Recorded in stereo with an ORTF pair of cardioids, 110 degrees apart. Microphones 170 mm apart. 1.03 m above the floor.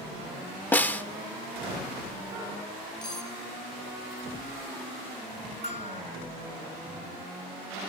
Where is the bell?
40° left, 1.6 m.